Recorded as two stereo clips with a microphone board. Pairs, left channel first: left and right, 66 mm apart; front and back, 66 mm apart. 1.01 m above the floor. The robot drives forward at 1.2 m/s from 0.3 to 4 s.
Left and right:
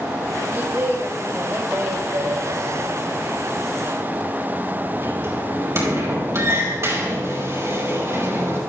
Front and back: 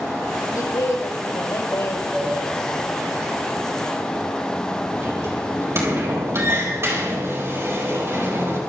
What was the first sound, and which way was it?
A woman speaking, 30° right.